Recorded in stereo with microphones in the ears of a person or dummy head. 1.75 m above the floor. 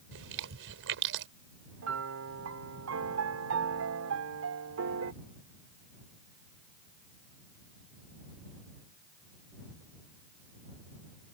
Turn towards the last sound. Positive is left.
turn(degrees=-70)  # may be behind; listen again after turning